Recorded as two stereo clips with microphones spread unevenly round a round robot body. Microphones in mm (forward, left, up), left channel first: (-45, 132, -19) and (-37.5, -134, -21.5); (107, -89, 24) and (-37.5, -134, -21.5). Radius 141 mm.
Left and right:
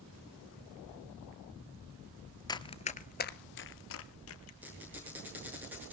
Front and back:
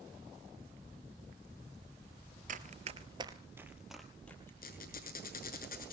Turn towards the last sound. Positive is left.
turn(degrees=-5)